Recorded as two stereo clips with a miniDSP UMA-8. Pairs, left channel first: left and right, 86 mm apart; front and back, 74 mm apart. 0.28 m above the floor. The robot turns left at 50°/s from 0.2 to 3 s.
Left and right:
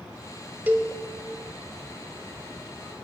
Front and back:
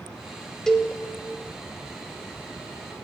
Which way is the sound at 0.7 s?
70° right.